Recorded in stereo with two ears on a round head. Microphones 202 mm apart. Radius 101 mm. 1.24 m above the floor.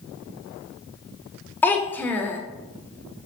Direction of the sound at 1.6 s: 10° left (ahead or behind).